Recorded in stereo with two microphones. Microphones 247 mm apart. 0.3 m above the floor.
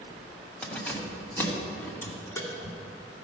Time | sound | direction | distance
0.6 | keys jangling | 5° left (ahead or behind) | 1.2 m